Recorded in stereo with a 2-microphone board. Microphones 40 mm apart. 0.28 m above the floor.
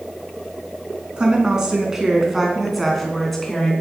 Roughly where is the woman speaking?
Right.